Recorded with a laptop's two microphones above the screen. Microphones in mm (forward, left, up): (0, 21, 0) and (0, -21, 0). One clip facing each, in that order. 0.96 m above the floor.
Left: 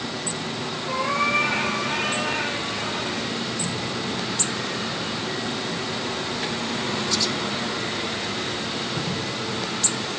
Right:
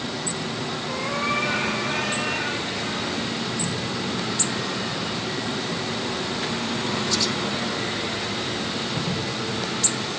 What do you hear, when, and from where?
0.9 s a cat meowing: 75° left (ahead or behind), 7.5 m; by 3.3 s 50° left (ahead or behind), 8 m